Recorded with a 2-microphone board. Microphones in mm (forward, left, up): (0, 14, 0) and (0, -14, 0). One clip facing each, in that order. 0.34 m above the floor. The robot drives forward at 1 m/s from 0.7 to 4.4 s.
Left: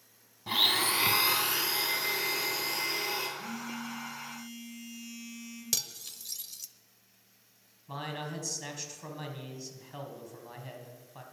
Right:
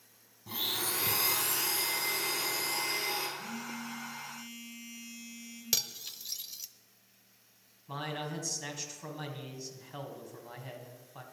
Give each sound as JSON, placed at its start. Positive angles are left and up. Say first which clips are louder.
{"t": 0.5, "sound": "a blender", "louder": "left 8 dB", "side_deg": 65, "distance_m": 0.8}
{"t": 3.4, "sound": "a phone buzzing", "louder": "left 2 dB", "side_deg": 15, "distance_m": 3.5}
{"t": 5.7, "sound": "cutlery clinking", "louder": "right 2 dB", "side_deg": -20, "distance_m": 0.6}
{"t": 7.9, "sound": "a man speaking", "louder": "even", "side_deg": 0, "distance_m": 2.0}